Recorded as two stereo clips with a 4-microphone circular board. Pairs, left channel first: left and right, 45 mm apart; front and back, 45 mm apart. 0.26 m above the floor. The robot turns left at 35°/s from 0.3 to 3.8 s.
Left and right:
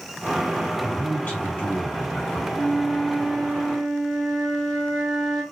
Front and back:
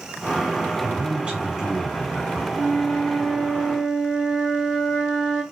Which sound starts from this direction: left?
A flute, at 2.5 s.